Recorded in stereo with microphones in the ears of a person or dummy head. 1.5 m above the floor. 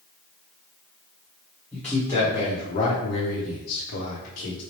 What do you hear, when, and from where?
1.7 s a man speaking: 5° left (ahead or behind), 1.2 m; by 4.6 s 60° left (ahead or behind), 1.2 m